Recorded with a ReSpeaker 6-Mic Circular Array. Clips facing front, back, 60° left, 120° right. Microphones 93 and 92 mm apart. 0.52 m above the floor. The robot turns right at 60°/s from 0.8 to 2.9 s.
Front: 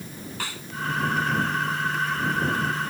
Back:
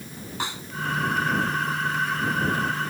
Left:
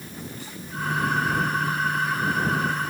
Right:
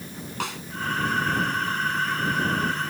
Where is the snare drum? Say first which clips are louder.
Back 5 dB, right 7 dB; 110° right.